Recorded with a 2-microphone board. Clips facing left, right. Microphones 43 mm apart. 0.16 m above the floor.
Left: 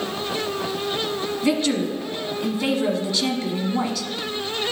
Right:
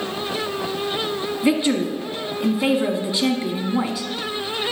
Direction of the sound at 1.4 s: 15° right (ahead or behind).